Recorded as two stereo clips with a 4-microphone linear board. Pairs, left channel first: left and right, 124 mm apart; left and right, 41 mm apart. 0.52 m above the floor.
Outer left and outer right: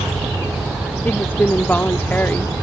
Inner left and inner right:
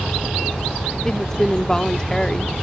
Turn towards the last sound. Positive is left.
turn(degrees=15)  # may be behind; listen again after turning